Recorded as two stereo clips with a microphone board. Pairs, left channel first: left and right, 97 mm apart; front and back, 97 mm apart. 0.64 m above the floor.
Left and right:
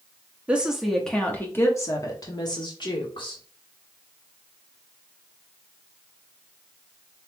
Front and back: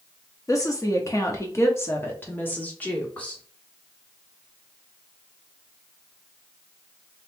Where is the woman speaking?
20° right, 1.0 m; by 3.4 s 75° left, 1.9 m.